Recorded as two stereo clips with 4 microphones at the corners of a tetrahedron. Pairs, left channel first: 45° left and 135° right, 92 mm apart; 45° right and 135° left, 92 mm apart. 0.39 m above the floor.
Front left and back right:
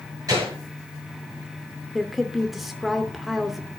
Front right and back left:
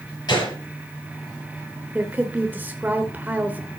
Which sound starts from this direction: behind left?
A woman speaking, at 1.9 s.